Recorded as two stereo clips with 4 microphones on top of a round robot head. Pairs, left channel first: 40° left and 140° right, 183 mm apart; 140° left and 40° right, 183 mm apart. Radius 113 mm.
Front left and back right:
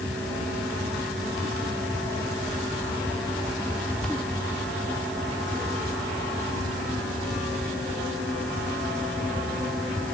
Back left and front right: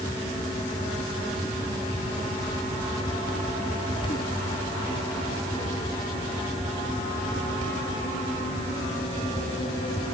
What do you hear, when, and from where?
Only background noise.